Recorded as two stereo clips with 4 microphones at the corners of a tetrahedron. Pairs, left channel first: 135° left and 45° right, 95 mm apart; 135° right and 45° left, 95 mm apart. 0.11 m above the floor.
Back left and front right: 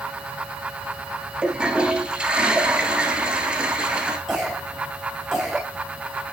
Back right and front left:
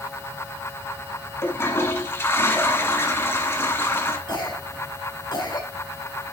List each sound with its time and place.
1.4 s a toilet flushing: 110° right, 1.5 m
4.3 s a cough: 135° right, 1.7 m